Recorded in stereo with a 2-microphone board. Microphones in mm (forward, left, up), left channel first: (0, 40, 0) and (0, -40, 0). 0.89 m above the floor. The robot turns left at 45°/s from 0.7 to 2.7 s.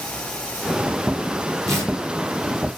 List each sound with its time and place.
1.7 s tearing paper: 40° right (ahead or behind), 8 m; by 1.9 s 30° right (ahead or behind), 8 m